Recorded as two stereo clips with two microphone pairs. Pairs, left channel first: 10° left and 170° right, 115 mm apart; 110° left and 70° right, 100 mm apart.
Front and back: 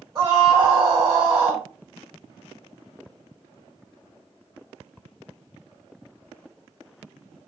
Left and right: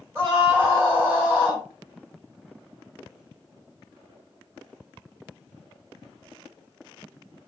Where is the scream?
120° right, 1.7 m.